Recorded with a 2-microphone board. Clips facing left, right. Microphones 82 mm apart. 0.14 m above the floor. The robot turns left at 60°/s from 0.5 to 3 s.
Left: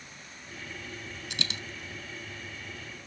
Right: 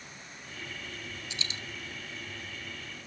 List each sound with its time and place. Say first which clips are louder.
1.3 s a dropped coin: left 6 dB; 65° left (ahead or behind), 0.5 m; by 1.6 s 75° left (ahead or behind), 0.5 m